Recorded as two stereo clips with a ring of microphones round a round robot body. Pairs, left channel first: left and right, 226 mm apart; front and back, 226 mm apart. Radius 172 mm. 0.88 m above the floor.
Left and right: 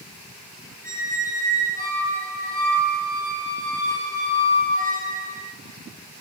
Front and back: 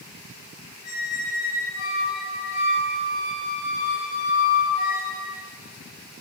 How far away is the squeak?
About 5 m.